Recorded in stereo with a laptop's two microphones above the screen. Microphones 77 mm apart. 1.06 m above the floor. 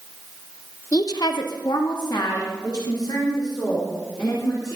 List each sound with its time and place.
0.9 s a woman speaking: 45° left (ahead or behind), 1.0 m; by 4.8 s 60° left (ahead or behind), 6 m